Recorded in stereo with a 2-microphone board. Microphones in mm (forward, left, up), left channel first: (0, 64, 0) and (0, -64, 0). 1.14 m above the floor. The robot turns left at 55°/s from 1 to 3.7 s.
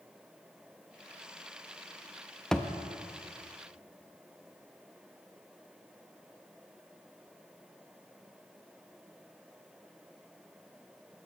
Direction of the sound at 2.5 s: 5° left (ahead or behind).